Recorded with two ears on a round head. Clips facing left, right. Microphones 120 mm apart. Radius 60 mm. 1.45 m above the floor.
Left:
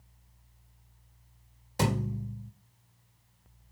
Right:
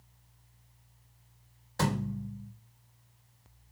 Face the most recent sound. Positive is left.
turn(degrees=20)  # may be behind; listen again after turning